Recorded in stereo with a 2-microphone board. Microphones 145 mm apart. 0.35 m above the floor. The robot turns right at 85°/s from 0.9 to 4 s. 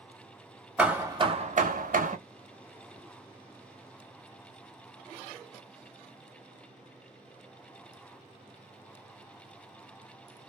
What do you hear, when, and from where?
0.8 s hammering: 170° right, 0.6 m; by 2.2 s 65° right, 0.6 m